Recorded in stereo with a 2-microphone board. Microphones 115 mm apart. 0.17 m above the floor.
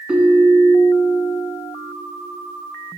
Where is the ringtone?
10° right (ahead or behind), 1.3 m.